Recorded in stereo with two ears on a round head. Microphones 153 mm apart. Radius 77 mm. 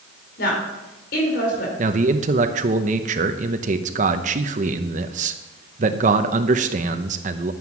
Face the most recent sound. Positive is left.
turn(degrees=-45)  # may be behind; listen again after turning